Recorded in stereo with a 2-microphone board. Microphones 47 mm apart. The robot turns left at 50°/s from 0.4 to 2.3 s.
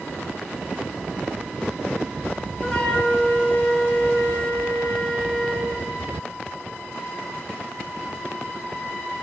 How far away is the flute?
About 1.3 m.